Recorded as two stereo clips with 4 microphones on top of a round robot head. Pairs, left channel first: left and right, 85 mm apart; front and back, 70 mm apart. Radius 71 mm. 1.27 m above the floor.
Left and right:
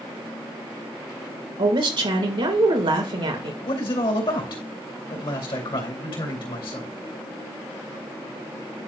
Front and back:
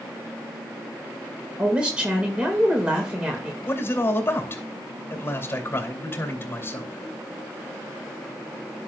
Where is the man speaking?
55° left, 2.5 m.